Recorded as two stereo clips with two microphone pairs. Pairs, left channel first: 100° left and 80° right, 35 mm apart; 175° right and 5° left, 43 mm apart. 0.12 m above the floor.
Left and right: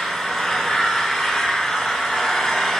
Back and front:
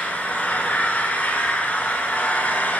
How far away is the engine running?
About 1.3 m.